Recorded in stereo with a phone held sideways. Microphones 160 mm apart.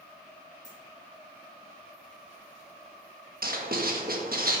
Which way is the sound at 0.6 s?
45° right (ahead or behind).